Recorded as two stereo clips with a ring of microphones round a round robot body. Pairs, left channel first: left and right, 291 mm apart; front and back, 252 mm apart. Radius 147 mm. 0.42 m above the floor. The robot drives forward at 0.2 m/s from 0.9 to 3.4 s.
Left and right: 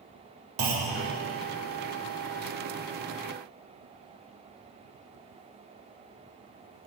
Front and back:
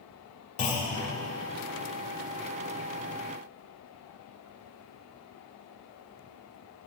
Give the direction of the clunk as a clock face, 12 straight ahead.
2 o'clock.